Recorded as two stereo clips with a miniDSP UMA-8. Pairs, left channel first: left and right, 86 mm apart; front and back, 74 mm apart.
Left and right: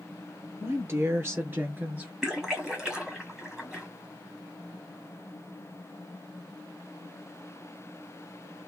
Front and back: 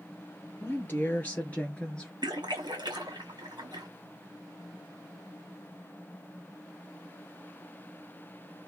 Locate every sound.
0.6 s a woman speaking: 50° right, 2 m; by 2.1 s 55° right, 1.6 m
2.2 s a splash: 170° right, 1.6 m